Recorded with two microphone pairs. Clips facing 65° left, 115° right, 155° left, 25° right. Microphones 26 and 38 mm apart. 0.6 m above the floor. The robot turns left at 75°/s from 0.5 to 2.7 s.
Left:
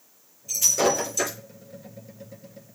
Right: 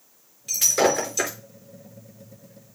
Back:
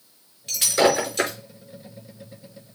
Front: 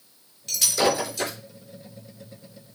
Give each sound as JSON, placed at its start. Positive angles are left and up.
{"t": 0.5, "sound": "breaking glass", "azimuth_deg": -135, "distance_m": 4.5}